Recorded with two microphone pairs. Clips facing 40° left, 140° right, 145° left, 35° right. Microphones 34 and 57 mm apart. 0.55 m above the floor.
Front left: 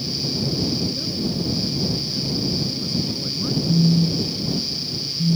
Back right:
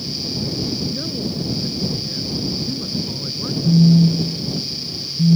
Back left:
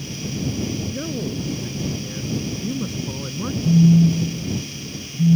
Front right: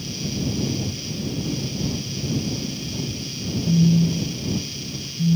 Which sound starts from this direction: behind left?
A man speaking, at 0.9 s.